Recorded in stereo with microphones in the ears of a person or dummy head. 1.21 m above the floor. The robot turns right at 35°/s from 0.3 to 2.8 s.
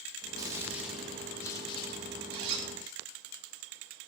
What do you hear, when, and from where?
0.4 s a gunshot: 20° right, 2 m; by 2.5 s 55° left, 2 m
2.3 s a zipper: 75° right (ahead or behind), 2.5 m; by 2.7 s 65° right (ahead or behind), 2.5 m